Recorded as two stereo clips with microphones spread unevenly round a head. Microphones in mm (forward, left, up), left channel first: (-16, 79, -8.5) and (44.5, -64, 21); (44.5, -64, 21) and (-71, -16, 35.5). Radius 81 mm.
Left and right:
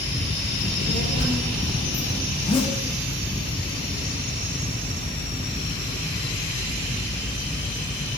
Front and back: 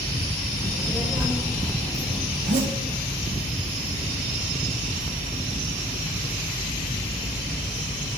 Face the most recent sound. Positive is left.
turn(degrees=170)